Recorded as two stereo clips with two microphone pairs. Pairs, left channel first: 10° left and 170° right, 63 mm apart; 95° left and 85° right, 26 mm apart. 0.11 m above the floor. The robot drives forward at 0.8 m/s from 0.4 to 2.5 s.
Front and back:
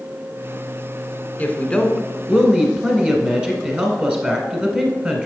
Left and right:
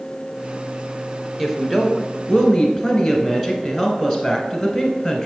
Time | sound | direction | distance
1.4 | a woman speaking | 5° right | 1.2 m